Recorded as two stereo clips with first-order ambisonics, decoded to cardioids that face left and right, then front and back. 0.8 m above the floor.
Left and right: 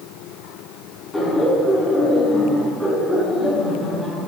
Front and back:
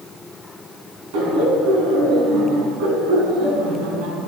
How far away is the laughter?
About 7.5 m.